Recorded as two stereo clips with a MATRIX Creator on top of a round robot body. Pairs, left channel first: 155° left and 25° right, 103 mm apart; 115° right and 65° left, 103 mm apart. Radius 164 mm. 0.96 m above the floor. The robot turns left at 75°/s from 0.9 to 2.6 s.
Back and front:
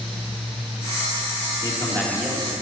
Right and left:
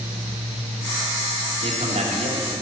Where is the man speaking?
105° left, 1.6 m; by 2.6 s 30° left, 1.6 m.